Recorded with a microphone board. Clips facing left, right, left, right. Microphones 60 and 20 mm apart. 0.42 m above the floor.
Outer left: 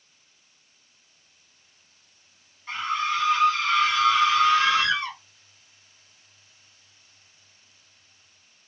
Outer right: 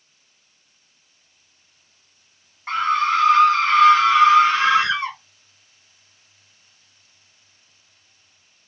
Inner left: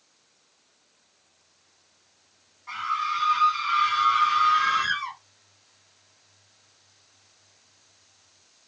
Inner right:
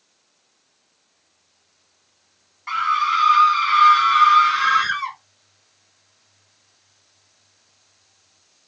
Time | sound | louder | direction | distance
2.7 | a scream | outer right 7 dB, inner right 8 dB | 60° right (ahead or behind) | 3.5 m